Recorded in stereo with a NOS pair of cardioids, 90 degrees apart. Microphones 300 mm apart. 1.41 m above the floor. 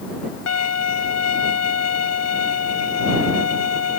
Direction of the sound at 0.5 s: 60° left.